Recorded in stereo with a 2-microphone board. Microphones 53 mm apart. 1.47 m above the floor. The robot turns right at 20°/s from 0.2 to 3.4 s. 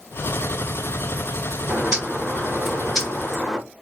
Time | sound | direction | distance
1.7 | a bird | 25° right | 1.5 m